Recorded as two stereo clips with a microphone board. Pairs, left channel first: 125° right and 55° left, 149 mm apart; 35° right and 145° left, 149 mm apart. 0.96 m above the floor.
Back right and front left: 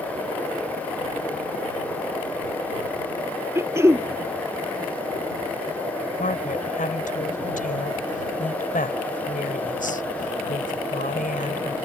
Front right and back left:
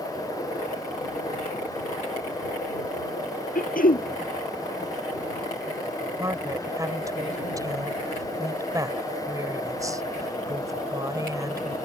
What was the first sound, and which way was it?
Throat clearing, 15° right.